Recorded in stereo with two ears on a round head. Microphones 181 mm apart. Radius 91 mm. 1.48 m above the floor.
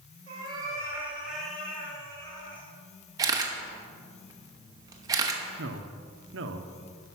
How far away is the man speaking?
About 0.8 m.